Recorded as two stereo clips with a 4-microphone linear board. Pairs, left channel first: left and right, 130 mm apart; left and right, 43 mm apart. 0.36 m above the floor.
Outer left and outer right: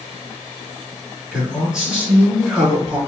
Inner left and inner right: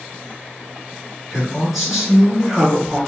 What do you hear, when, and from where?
1.3 s a man speaking: 5° right (ahead or behind), 4 m